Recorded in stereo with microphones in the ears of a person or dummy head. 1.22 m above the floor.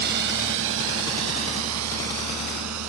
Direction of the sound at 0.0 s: 55° right (ahead or behind).